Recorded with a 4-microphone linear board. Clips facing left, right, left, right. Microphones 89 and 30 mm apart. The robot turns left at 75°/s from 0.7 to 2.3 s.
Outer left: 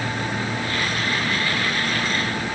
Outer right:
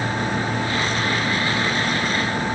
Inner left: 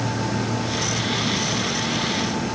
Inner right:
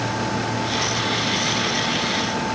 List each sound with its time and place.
Only background noise.